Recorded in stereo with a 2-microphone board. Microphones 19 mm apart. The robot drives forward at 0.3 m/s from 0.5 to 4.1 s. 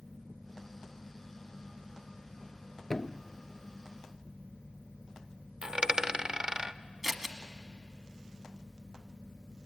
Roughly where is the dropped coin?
Right.